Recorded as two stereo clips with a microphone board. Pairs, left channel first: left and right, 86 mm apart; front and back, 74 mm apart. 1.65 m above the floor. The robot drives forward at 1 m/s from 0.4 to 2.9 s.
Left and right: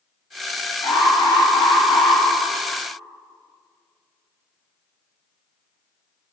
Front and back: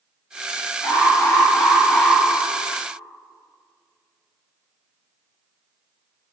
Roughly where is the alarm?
Ahead left.